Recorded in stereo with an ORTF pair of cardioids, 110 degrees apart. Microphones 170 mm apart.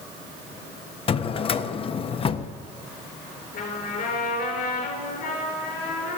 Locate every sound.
1.1 s a drawer: 35° left, 0.6 m
3.5 s a trumpet: 55° left, 4 m